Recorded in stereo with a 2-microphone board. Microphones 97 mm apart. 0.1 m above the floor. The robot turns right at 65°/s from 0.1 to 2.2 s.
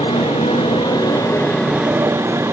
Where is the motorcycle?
75° left; by 2.5 s 150° right.